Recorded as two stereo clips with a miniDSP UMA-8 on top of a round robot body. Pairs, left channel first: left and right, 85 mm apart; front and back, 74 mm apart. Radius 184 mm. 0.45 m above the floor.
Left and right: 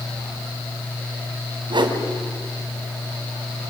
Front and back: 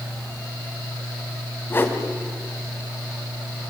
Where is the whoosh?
60° right, 2.5 m.